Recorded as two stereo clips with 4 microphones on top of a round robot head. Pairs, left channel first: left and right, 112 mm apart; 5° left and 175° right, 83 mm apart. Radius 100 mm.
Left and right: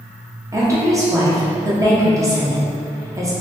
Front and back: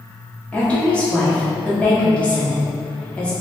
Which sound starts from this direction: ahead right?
A woman speaking, at 0.5 s.